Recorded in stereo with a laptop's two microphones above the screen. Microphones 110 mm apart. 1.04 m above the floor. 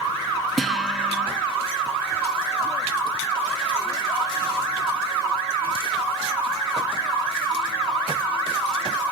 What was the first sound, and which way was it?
A guitar, centre (ahead or behind).